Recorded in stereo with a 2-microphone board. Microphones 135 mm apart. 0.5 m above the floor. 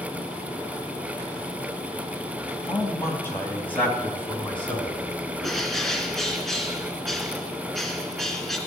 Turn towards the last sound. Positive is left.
turn(degrees=0)  # may be behind; listen again after turning